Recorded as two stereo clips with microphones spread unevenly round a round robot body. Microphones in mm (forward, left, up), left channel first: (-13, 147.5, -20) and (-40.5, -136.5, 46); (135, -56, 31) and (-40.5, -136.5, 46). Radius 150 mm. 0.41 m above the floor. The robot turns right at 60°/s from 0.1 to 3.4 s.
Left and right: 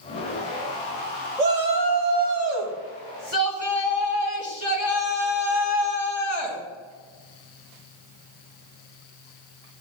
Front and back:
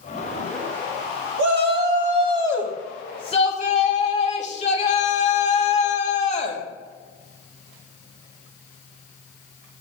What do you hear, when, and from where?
1.4 s a shout: 150° right, 3 m; by 6.6 s 25° right, 3 m